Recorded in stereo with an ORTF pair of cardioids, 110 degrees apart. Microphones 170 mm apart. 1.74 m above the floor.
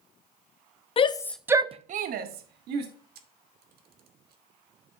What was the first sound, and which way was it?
A shout, 35° left.